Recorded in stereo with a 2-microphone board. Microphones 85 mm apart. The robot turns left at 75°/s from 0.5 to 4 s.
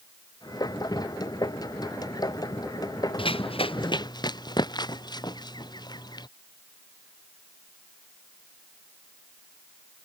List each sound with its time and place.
3.2 s running footsteps: 70° left (ahead or behind); by 6.3 s 50° left (ahead or behind)